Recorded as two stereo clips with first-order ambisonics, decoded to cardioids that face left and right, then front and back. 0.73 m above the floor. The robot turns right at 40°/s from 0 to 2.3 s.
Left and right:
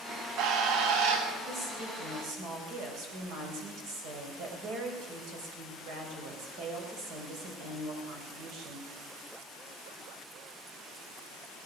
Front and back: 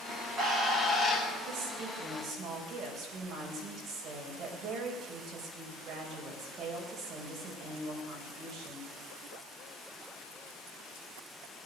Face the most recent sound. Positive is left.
turn(degrees=-125)